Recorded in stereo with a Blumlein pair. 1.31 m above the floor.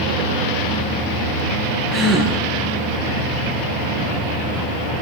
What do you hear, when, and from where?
1.9 s a gasp: 15° right, 7.5 m